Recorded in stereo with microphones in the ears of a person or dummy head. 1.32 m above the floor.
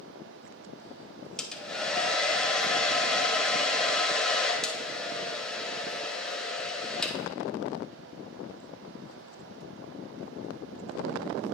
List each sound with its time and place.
1.4 s a hair dryer: 5° left (ahead or behind), 0.6 m